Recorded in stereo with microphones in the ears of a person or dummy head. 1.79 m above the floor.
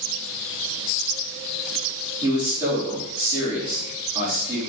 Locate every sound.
2.2 s a man speaking: 15° right (ahead or behind), 3.5 m